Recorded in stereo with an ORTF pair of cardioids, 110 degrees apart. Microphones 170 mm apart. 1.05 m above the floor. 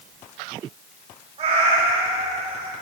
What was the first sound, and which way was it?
A cat meowing, 40° right.